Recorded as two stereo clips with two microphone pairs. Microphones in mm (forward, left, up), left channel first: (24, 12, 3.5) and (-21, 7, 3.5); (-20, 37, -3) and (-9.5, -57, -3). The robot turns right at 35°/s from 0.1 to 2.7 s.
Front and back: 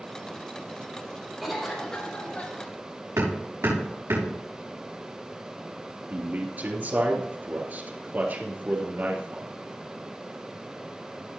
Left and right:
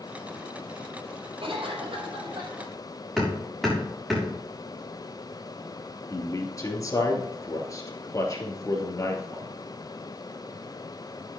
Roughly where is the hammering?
Behind.